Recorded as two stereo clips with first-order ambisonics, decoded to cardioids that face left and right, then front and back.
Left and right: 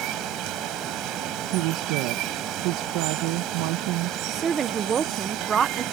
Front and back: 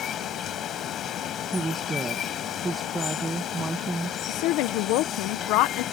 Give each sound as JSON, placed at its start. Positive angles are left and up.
{"t": 0.0, "sound": "running water", "azimuth_deg": -55}
{"t": 1.5, "sound": "a woman speaking", "azimuth_deg": -100}
{"t": 4.3, "sound": "a woman speaking", "azimuth_deg": -25}